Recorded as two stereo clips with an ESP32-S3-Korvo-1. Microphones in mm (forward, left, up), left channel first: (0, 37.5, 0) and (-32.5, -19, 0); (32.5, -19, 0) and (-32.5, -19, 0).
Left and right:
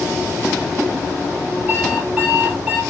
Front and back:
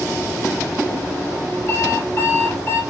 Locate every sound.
1.7 s an alarm clock: 60° right, 2.5 m